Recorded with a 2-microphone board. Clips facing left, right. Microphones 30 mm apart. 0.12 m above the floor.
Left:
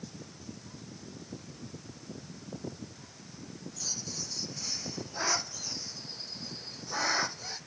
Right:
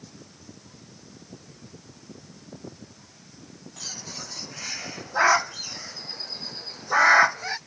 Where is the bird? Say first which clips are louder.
Right 3 dB; 55° right (ahead or behind).